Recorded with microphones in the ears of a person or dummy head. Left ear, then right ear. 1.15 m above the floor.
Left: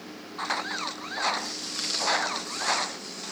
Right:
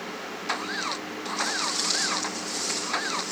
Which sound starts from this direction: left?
Footsteps, at 1.4 s.